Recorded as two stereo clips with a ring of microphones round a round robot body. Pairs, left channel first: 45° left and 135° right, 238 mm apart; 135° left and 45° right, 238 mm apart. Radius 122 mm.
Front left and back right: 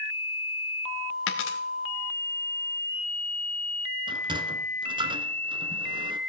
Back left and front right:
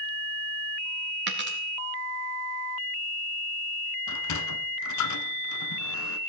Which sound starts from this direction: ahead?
A dropped coin, at 1.3 s.